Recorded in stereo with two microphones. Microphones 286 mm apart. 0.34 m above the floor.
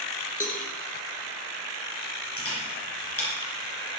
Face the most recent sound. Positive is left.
turn(degrees=50)  # may be behind; listen again after turning